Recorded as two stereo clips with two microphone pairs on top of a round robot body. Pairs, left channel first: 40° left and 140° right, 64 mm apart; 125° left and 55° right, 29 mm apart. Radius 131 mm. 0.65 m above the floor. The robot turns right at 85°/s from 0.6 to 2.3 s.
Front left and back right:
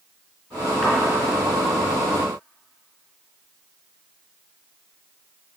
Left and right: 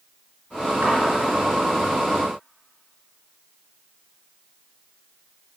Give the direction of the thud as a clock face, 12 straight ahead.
2 o'clock.